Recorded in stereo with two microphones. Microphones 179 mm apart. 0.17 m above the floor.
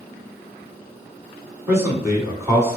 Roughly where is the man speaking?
Centre.